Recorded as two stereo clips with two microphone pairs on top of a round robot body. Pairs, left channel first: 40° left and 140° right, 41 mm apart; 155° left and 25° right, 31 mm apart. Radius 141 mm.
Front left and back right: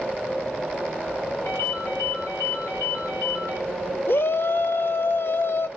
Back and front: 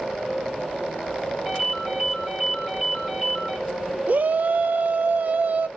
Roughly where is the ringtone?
Ahead left.